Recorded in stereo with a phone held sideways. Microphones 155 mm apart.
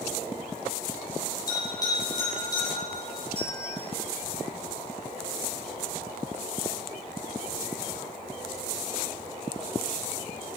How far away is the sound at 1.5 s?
About 4.5 m.